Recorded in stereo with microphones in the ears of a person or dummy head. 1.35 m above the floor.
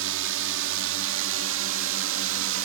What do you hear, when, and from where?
0.0 s a drone: 70° right (ahead or behind)